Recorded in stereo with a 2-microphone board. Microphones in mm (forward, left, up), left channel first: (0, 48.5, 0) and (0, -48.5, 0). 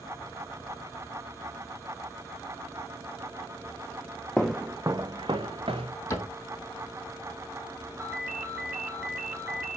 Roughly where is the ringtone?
Centre.